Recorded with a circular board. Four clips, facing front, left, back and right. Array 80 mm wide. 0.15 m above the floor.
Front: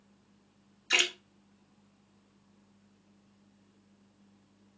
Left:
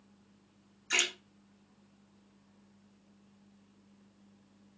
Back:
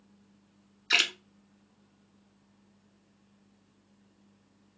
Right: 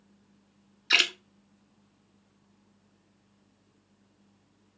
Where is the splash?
110° right, 0.8 m.